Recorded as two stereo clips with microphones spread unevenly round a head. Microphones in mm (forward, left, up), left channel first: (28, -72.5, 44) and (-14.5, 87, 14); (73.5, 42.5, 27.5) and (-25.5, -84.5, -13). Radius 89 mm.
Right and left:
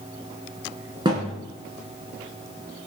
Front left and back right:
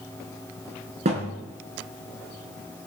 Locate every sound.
1.1 s a thud: 175° left, 4 m